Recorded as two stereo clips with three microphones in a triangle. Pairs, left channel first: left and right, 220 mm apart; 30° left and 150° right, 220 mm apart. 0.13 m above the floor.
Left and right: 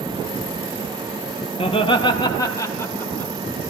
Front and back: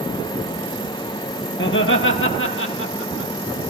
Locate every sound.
1.6 s laughter: 30° left, 3 m; by 3.3 s 10° left, 5 m